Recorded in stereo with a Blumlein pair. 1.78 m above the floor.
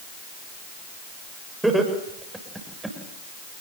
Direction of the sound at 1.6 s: 5° right.